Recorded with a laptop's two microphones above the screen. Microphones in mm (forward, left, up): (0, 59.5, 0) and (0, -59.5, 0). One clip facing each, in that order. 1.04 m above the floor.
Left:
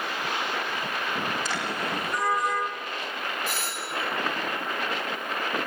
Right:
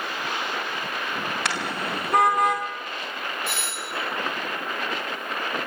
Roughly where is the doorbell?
Left.